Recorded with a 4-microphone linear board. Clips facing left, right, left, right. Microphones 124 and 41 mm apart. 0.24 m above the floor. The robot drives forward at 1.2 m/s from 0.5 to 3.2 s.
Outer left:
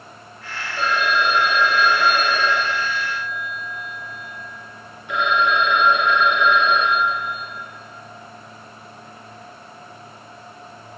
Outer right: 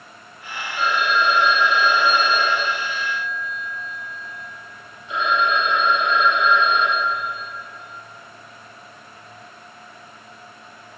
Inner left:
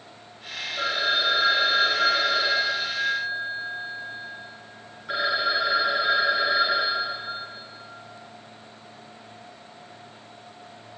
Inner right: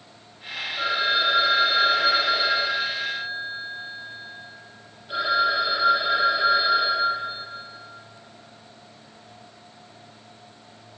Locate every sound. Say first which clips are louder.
0.8 s a phone ringing: even, inner right 2 dB; 35° left (ahead or behind), 4.5 m; by 7.4 s 65° left (ahead or behind), 3 m